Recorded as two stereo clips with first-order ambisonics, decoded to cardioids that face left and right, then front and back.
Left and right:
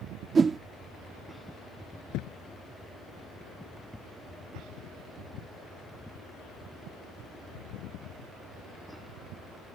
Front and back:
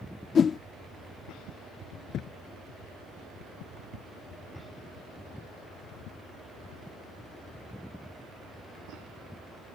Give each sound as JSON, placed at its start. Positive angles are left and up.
{"t": 0.3, "sound": "a whoosh", "azimuth_deg": -40}
{"t": 2.1, "sound": "a thud", "azimuth_deg": 55}